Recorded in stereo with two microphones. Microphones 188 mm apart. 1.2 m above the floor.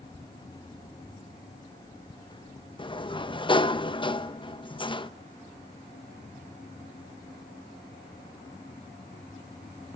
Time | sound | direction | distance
2.8 | a sliding door | 25° left (ahead or behind) | 0.6 m